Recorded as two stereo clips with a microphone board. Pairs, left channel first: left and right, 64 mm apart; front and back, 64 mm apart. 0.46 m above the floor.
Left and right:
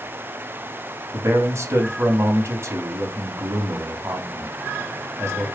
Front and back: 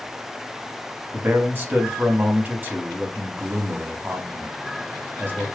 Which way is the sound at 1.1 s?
125° right.